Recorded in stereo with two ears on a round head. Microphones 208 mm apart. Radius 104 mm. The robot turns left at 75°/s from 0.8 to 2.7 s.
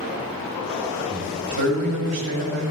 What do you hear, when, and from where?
1.1 s a man speaking: 20° right, 4.5 m; by 2.6 s 135° right, 4.5 m